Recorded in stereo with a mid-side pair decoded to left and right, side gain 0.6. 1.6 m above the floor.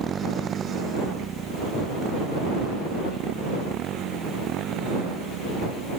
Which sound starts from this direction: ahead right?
A motorcycle, at 0.0 s.